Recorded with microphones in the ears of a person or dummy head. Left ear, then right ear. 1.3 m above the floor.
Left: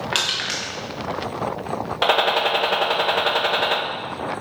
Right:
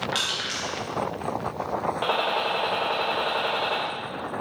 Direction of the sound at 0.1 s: 25° left (ahead or behind).